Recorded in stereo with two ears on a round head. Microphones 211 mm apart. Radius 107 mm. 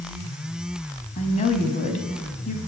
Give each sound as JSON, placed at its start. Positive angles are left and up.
{"t": 1.2, "sound": "a woman speaking", "side_deg": 30, "distance_m": 3.5}